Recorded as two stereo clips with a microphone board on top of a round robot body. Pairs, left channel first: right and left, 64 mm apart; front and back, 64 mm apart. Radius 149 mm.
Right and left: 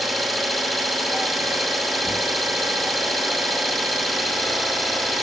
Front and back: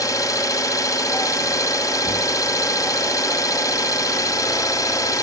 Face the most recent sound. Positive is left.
turn(degrees=0)